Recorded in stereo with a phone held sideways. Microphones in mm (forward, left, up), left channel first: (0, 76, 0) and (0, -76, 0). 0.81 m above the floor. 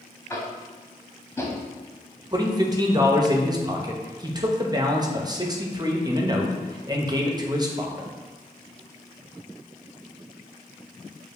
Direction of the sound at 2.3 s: 25° right (ahead or behind).